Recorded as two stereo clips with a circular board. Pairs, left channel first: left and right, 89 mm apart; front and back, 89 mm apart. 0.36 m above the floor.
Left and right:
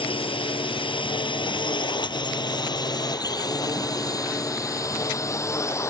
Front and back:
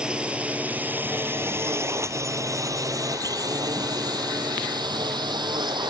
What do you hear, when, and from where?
0.0 s a drone: 100° left; by 5.9 s 150° left